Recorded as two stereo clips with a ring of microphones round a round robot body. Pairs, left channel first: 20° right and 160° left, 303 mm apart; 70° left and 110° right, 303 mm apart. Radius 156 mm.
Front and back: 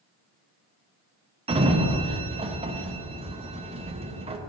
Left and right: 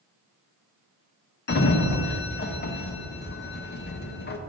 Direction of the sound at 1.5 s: 100° left.